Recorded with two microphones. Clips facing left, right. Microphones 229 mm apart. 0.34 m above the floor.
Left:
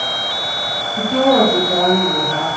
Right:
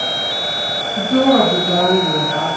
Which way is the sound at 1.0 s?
45° right (ahead or behind).